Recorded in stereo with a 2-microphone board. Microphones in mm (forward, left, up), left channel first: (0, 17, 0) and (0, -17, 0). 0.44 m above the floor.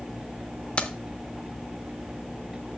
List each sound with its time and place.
0.8 s keys jangling: 35° left (ahead or behind), 0.6 m